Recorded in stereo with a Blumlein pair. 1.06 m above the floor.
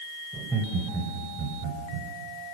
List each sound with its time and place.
0.3 s laughter: 10° right, 4.5 m; by 2.1 s 40° right, 5 m